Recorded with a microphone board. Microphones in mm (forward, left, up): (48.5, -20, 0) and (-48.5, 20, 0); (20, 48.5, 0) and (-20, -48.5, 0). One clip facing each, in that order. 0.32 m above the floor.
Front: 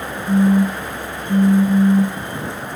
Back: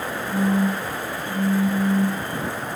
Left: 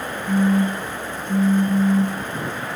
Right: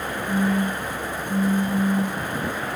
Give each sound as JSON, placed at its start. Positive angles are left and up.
{"t": 0.3, "sound": "a phone buzzing", "azimuth_deg": 20, "distance_m": 0.9}